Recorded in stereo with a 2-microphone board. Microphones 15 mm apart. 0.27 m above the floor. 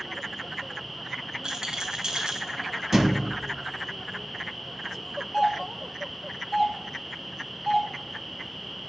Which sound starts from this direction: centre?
A doorbell, at 5.3 s.